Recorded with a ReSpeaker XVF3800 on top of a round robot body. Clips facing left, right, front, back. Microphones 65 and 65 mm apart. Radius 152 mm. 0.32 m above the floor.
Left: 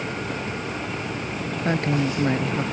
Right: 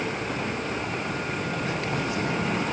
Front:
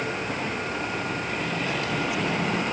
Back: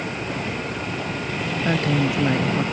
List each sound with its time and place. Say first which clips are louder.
1.6 s a woman speaking: left 5 dB, back 10 dB; 130° left